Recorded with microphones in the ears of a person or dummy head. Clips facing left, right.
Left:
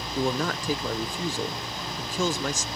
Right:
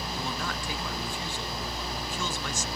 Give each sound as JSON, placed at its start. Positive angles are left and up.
{"t": 0.1, "sound": "a man speaking", "side_deg": 35, "distance_m": 0.8}